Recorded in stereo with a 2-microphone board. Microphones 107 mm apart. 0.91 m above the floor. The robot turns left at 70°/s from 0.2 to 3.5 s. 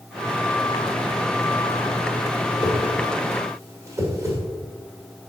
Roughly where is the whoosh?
Left.